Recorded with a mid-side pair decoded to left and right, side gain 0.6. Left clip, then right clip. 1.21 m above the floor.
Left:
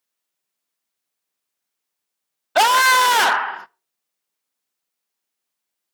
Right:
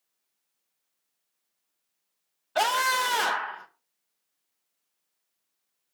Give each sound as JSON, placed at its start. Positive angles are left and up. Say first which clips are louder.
{"t": 2.5, "sound": "a scream", "louder": "left 11 dB", "azimuth_deg": 50, "distance_m": 0.6}